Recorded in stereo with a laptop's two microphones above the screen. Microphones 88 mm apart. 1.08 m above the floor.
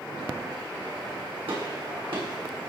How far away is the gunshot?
About 9 m.